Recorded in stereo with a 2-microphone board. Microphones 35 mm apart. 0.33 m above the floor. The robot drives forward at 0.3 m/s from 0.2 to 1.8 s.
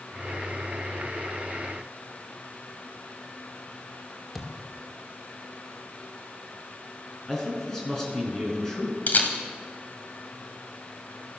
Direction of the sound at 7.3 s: 10° left (ahead or behind).